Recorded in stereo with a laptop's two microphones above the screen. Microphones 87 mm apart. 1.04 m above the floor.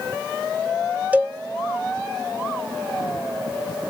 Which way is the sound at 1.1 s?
20° right (ahead or behind).